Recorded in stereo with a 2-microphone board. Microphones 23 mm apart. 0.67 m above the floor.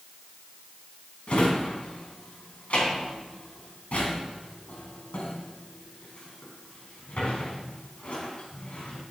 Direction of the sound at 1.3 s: 80° left.